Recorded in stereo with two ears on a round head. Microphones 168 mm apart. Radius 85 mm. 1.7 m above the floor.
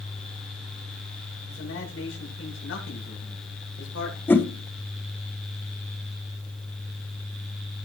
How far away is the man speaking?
About 6 m.